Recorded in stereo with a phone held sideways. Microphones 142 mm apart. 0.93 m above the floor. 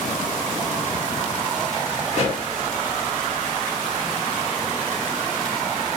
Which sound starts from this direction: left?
A pop, at 2.1 s.